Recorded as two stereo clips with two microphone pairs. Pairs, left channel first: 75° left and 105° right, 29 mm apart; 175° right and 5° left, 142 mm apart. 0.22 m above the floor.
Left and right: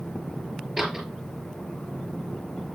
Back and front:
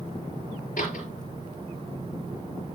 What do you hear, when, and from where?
0.8 s a door slam: 170° left, 4.5 m